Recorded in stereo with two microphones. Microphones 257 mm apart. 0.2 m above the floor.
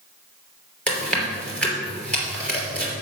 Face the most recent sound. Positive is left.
turn(degrees=5)  # may be behind; listen again after turning